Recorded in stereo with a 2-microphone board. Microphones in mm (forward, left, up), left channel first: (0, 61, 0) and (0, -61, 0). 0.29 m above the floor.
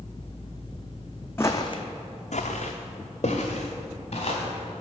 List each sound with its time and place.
1.4 s footsteps: 20° left (ahead or behind), 0.8 m; by 4.8 s 50° left (ahead or behind), 3 m